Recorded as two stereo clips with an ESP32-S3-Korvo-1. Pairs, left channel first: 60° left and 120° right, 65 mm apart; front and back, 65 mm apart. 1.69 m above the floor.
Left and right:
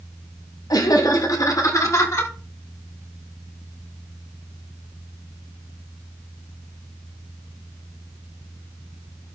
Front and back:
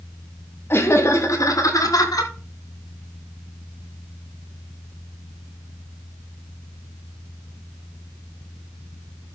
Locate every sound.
0.7 s laughter: 50° left, 3 m; by 2.3 s 15° left, 4 m